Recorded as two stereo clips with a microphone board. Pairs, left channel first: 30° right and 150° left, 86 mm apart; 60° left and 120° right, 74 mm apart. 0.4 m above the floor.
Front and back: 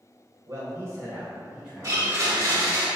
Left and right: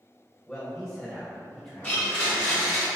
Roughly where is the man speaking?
Behind left.